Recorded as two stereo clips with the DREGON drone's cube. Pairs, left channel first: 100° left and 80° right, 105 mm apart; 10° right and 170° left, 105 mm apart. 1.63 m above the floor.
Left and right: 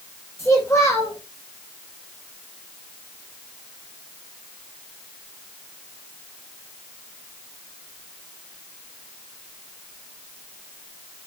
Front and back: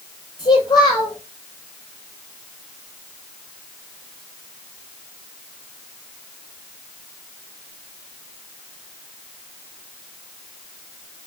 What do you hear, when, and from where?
0.4 s a child speaking: 40° left, 6 m